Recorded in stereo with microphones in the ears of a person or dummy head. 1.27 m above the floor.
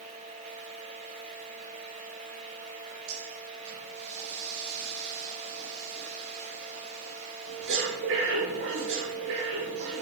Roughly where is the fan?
Right.